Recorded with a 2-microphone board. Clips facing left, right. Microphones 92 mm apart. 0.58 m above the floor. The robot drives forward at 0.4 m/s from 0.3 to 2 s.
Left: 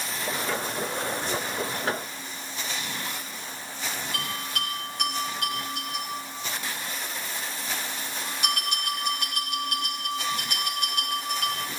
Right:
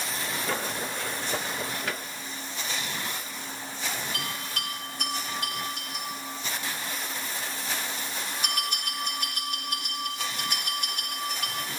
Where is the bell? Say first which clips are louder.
Left 2 dB; 65° left (ahead or behind), 6 m.